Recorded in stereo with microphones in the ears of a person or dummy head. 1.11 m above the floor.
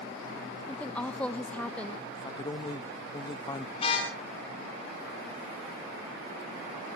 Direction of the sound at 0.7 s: 5° left (ahead or behind).